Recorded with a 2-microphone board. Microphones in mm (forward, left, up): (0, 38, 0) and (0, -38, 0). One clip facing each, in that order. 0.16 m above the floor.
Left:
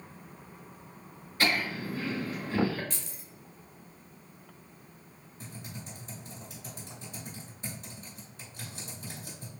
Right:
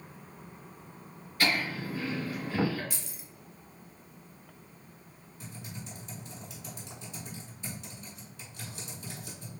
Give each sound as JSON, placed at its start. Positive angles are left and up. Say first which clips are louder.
{"t": 1.4, "sound": "laughter", "louder": "even", "side_deg": 20, "distance_m": 1.4}
{"t": 2.9, "sound": "keys jangling", "louder": "even", "side_deg": -10, "distance_m": 0.8}
{"t": 5.4, "sound": "typing on a keyboard", "louder": "even", "side_deg": 40, "distance_m": 1.8}